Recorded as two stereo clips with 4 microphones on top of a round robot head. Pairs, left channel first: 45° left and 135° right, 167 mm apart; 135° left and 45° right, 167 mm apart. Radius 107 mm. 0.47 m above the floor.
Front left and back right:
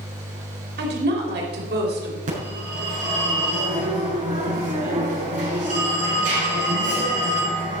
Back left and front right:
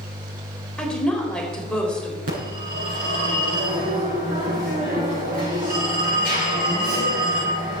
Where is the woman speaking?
140° right, 2.5 m.